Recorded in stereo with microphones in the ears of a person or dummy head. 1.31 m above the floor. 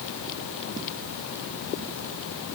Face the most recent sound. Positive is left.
No sound to turn to.